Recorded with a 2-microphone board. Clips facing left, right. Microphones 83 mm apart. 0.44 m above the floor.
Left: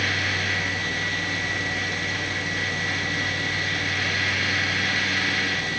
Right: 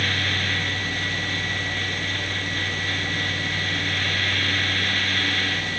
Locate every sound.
Only background noise.